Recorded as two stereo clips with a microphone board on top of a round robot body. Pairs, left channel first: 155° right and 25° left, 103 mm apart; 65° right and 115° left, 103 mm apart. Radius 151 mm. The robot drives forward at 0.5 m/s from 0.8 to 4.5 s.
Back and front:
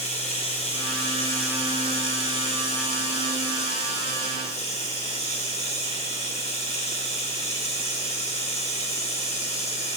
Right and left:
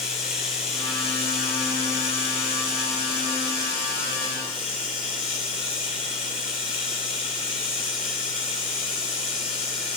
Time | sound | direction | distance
0.0 | running water | 160° right | 8 m